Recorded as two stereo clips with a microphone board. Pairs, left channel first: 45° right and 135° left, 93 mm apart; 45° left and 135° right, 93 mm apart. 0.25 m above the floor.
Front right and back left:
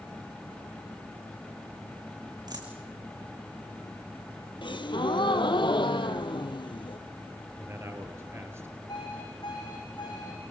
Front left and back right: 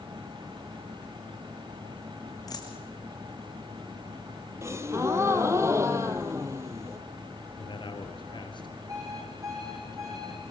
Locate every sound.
2.5 s a dropped coin: 95° left, 3 m
4.6 s a gasp: 75° right, 1.3 m
7.6 s a man speaking: 75° left, 3.5 m
8.9 s an alarm clock: 85° right, 8 m